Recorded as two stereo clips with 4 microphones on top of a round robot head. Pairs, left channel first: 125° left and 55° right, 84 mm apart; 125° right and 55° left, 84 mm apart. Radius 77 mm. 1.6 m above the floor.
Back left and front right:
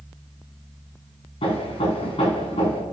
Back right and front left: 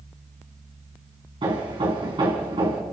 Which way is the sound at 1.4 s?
95° left.